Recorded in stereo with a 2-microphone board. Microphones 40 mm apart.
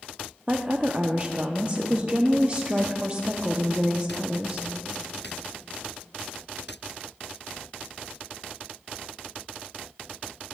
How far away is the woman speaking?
About 0.5 m.